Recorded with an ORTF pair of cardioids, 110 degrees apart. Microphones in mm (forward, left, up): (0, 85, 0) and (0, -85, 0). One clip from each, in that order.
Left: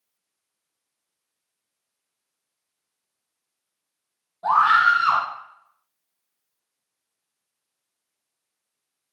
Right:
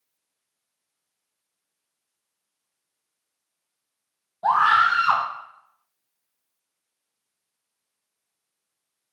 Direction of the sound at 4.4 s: 15° right.